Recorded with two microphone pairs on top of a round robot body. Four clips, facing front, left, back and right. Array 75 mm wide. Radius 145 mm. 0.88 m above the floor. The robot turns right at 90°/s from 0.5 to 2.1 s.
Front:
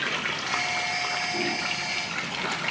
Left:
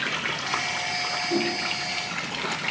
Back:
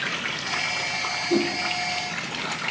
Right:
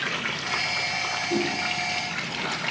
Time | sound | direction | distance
1.3 | a whoosh | 175° left | 6 m